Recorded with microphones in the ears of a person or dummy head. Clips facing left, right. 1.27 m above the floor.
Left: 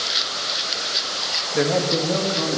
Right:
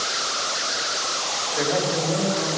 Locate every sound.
1.5 s a man speaking: 35° left (ahead or behind), 1.8 m; by 2.6 s 50° left (ahead or behind), 3 m